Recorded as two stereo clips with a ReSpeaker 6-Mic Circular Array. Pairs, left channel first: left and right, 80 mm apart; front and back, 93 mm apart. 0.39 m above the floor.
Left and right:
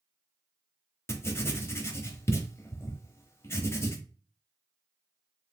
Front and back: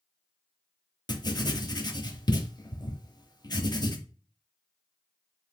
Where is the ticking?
No ticking in this recording.